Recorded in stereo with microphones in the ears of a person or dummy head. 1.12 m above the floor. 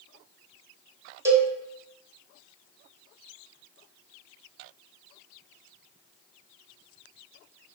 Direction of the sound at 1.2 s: 20° right (ahead or behind).